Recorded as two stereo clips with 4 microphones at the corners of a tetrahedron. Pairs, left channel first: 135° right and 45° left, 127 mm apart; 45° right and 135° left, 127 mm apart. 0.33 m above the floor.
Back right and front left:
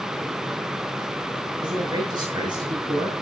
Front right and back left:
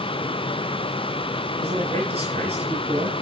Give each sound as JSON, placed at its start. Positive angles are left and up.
{"t": 1.6, "sound": "a man speaking", "azimuth_deg": 100, "distance_m": 7.0}